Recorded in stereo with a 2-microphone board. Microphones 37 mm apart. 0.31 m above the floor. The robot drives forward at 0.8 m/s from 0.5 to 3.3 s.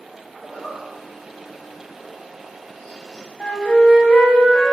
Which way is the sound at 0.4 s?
30° left (ahead or behind).